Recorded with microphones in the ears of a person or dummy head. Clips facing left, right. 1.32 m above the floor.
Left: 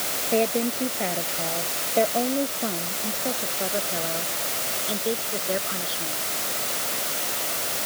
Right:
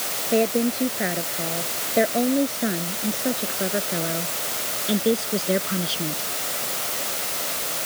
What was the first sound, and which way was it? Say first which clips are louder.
A woman speaking: right 3 dB; 15° right (ahead or behind).